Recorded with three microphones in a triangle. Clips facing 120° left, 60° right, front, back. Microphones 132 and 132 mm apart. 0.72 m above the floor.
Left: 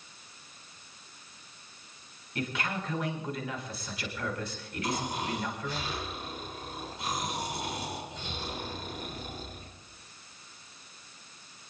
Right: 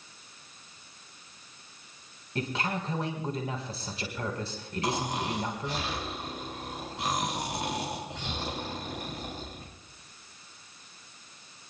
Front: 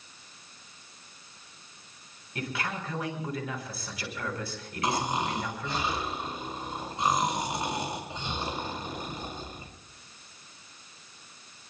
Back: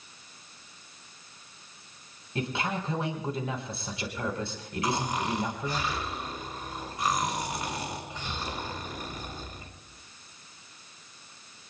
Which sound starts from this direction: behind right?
A man speaking, at 2.4 s.